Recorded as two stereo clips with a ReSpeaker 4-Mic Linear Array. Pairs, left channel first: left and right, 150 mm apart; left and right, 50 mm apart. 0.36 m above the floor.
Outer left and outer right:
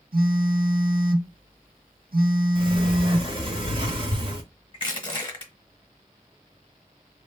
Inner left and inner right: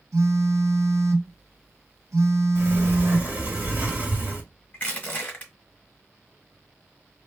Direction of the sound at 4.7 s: 35° left (ahead or behind).